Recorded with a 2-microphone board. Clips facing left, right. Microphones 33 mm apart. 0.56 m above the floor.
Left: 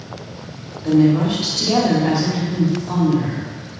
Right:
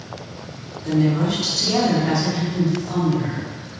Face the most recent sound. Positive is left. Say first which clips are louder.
# left 5 dB
turn(degrees=35)  # may be behind; listen again after turning